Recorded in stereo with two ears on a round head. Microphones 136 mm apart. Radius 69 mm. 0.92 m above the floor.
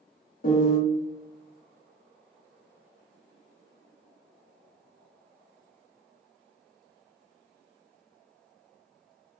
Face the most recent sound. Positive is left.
turn(degrees=60)  # may be behind; listen again after turning